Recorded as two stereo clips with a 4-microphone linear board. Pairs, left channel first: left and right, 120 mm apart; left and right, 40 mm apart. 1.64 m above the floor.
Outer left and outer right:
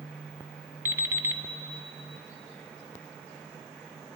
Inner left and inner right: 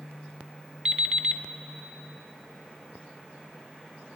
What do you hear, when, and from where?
0.8 s an alarm clock: 20° right (ahead or behind), 0.8 m